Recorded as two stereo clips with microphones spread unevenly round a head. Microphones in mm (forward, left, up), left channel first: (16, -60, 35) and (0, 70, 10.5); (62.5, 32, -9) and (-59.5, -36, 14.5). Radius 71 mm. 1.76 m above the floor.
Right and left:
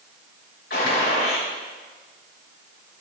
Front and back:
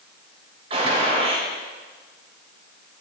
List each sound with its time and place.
0.7 s a gunshot: 100° right, 5 m